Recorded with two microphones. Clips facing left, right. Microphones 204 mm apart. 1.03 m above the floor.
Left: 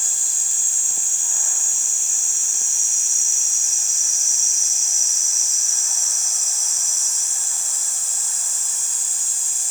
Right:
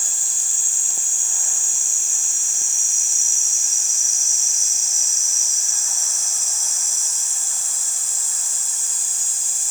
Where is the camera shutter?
I don't hear a camera shutter.